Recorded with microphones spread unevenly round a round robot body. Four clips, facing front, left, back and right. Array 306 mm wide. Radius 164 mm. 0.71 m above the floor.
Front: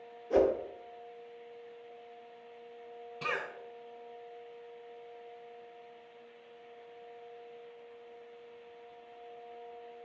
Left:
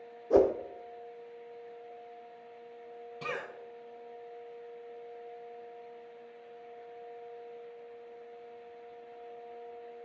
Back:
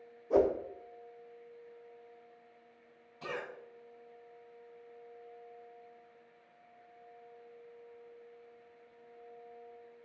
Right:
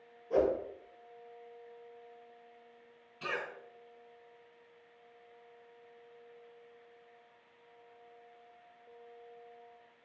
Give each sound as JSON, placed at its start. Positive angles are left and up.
{"t": 0.3, "sound": "a whoosh", "azimuth_deg": 85, "distance_m": 0.7}
{"t": 3.2, "sound": "a cough", "azimuth_deg": 40, "distance_m": 3.0}